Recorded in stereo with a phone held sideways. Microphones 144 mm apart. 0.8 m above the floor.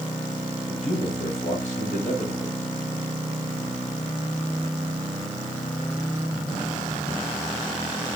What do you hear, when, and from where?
0.7 s a man speaking: 60° left (ahead or behind), 4 m